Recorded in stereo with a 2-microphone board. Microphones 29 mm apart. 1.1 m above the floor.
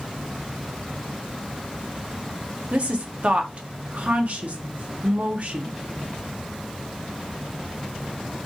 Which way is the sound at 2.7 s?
60° right (ahead or behind).